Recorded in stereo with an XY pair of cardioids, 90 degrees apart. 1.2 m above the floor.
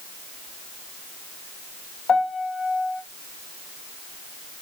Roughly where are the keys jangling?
No keys jangling in this recording.